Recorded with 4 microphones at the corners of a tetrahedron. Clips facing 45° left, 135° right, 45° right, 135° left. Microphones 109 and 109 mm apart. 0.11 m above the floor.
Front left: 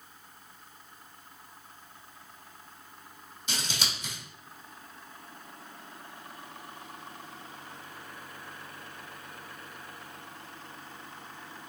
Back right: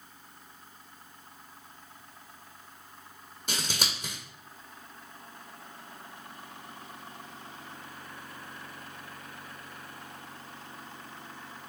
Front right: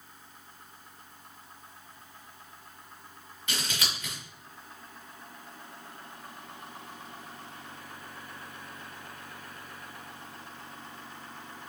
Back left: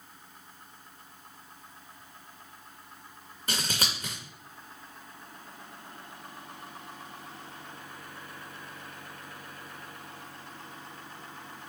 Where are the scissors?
170° right, 1.6 m.